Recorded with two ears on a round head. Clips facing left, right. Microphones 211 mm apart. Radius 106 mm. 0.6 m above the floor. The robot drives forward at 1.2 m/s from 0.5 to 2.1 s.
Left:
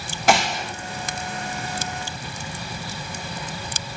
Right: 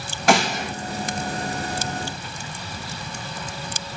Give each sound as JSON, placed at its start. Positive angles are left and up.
{"t": 0.3, "sound": "a gunshot", "side_deg": 0, "distance_m": 4.5}